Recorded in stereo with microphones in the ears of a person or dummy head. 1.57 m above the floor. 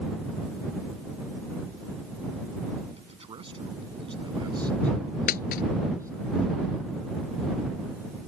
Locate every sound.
3.0 s a man speaking: 30° right (ahead or behind); by 6.3 s 15° right (ahead or behind)
5.3 s a dropped coin: 50° left (ahead or behind)